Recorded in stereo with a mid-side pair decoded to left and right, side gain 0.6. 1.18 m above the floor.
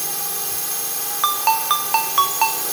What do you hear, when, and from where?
0.0 s a drone: 5° right
1.2 s a ringtone: 25° right